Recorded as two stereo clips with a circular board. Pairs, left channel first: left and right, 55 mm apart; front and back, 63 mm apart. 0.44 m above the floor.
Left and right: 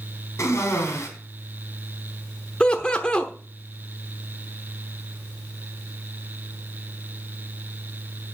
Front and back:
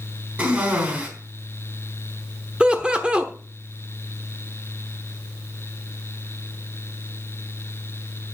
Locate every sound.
0.4 s a cough: 120° left, 4 m
2.6 s laughter: 130° left, 0.9 m